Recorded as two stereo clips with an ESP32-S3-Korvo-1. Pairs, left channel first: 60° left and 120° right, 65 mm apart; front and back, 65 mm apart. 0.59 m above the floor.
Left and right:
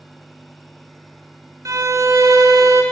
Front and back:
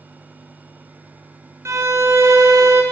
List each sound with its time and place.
1.6 s a violin: 145° right, 1.1 m